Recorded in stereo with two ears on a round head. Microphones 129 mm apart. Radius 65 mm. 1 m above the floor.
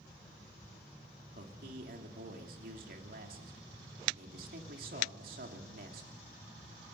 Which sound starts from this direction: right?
A man speaking, at 1.4 s.